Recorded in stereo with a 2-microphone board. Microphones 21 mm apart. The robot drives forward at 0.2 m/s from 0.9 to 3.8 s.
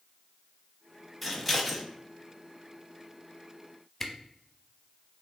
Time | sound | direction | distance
1.2 | scissors | 5° right (ahead or behind) | 0.8 m
4.0 | a camera shutter | 15° left (ahead or behind) | 0.5 m